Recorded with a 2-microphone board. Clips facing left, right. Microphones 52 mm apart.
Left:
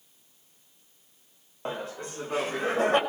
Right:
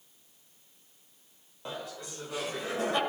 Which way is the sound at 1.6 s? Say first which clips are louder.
Left 5 dB; 35° left (ahead or behind).